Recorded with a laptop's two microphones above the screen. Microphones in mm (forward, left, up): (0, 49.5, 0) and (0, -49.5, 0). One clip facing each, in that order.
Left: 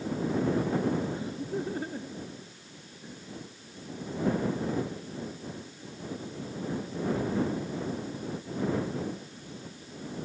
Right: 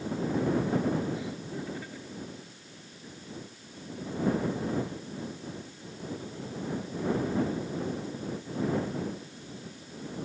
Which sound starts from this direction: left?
Laughter, at 1.1 s.